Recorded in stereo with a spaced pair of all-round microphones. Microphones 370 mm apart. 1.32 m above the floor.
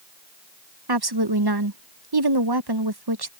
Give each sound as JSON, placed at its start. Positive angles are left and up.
{"t": 0.9, "sound": "a woman speaking", "side_deg": -75}